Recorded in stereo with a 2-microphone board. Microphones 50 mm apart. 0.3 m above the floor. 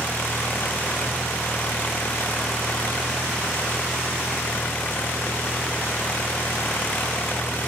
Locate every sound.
0.0 s an engine running: 40° left (ahead or behind)